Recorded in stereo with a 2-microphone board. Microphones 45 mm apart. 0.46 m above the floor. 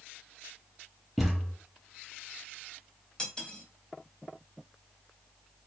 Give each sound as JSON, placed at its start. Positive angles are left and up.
{"t": 1.2, "sound": "a thud", "side_deg": 5, "distance_m": 2.0}
{"t": 3.2, "sound": "cutlery clinking", "side_deg": 20, "distance_m": 1.1}